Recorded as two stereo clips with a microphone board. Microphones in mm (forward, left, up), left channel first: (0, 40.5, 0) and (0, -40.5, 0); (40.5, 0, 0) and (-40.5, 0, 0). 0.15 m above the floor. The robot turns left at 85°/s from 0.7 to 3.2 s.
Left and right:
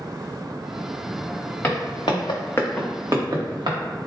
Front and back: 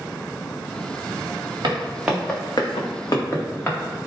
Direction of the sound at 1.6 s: 155° left.